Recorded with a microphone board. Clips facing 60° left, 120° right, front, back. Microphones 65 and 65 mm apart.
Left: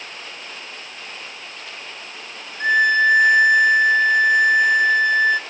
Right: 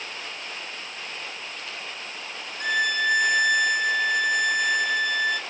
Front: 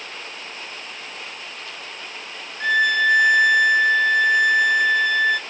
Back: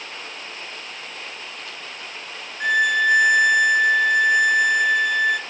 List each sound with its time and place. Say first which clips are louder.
2.6 s a violin: left 8 dB, even; 100° left, 0.8 m